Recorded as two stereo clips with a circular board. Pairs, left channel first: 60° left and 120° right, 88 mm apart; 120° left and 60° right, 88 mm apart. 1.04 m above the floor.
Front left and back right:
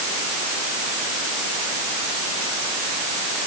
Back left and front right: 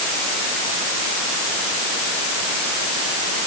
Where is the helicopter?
No helicopter in this recording.